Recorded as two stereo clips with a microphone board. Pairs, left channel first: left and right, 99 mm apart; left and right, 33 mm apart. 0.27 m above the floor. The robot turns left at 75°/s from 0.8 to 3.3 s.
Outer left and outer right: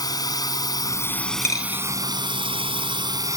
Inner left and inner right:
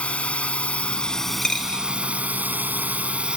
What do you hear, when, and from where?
0.0 s a drone: 45° left; by 3.4 s 140° right
1.4 s a dropped coin: 25° left (ahead or behind); by 1.9 s 55° left (ahead or behind)